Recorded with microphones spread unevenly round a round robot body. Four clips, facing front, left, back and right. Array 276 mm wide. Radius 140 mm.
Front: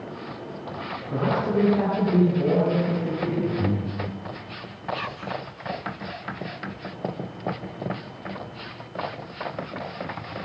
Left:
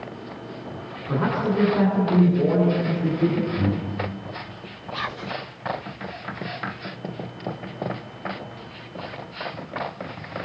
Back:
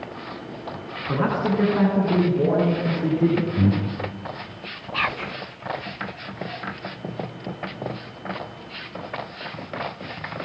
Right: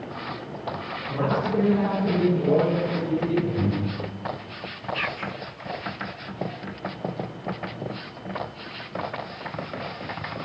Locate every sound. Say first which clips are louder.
1.1 s a man speaking: left 2 dB, back 2 dB; 155° left, 9 m; by 3.5 s 150° left, 11 m
3.6 s breathing: left 1 dB, back 4 dB; 175° left, 7 m
4.9 s whispering: left 3 dB, back 7 dB; 165° left, 0.7 m